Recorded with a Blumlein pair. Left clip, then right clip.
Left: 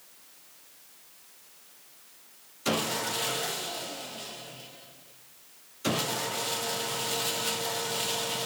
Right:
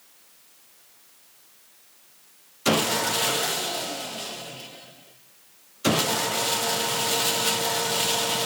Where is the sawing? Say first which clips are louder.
Right 7 dB; 70° right, 1.0 m.